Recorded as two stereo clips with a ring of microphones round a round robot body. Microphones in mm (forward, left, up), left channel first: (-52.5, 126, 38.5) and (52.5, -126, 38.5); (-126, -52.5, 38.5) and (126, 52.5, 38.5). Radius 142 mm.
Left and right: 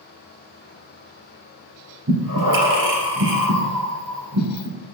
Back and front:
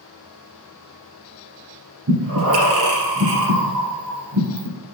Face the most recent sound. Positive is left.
turn(degrees=-20)